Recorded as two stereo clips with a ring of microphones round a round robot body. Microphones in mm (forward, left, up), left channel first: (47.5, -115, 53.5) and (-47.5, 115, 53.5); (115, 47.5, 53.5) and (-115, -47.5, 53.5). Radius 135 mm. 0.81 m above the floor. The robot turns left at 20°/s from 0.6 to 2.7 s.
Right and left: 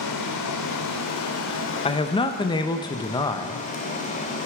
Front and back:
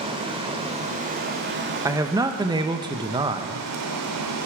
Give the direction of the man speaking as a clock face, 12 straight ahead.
3 o'clock.